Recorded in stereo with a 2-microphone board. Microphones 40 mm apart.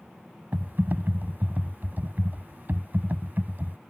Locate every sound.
0.5 s typing on a keyboard: 55° right (ahead or behind)